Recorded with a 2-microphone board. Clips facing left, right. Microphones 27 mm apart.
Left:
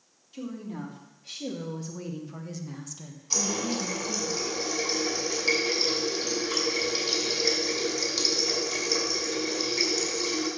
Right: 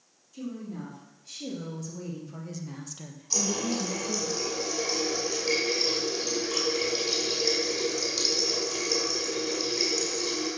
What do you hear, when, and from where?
0.3 s a woman speaking: 45° left (ahead or behind), 3.5 m; by 4.3 s 75° right (ahead or behind), 1.7 m
3.3 s a running tap: 20° left (ahead or behind), 5 m